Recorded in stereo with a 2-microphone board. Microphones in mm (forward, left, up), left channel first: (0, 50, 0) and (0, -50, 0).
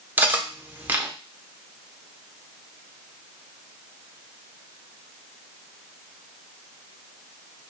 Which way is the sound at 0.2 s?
20° right (ahead or behind).